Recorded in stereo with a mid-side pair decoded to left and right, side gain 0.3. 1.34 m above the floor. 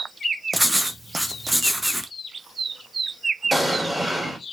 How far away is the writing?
About 0.9 m.